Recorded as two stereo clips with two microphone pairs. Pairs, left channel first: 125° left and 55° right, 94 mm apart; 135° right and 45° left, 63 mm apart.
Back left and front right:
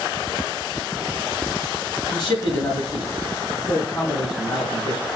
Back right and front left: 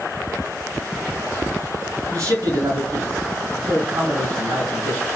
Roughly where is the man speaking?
Left.